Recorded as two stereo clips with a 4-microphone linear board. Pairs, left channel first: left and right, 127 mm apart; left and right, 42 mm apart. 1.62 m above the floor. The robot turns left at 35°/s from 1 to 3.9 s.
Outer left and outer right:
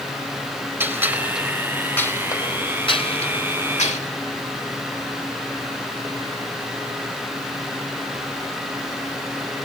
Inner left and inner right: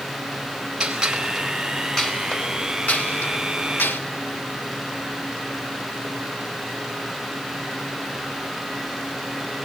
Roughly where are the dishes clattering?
No dishes clattering in this recording.